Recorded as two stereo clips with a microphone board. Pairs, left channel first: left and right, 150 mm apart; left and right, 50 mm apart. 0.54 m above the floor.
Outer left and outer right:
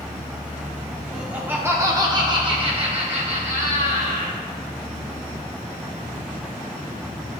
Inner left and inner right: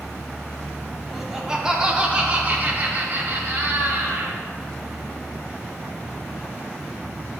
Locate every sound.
1.1 s laughter: 5° right (ahead or behind), 1.3 m; by 4.4 s 55° right (ahead or behind), 2.0 m